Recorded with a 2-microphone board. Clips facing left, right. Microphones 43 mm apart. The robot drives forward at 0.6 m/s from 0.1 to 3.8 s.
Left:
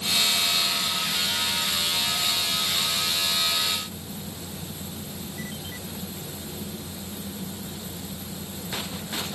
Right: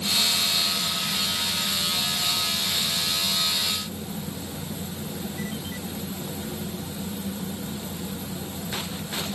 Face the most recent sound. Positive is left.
No sound to turn to.